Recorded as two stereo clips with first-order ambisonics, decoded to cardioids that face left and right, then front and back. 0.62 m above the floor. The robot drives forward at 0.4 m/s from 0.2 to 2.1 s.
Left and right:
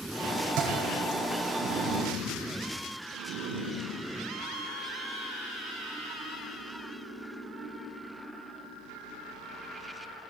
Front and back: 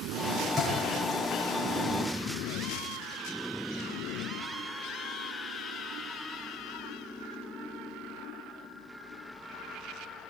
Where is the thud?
105° right, 9 m.